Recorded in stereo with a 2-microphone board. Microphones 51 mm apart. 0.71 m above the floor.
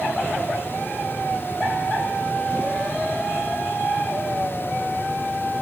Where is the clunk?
I don't hear a clunk.